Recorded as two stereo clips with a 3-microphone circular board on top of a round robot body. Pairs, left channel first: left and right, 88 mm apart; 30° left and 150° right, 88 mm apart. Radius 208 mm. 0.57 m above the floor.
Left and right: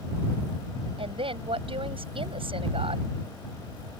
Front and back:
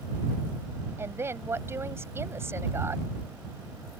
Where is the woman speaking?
90° right.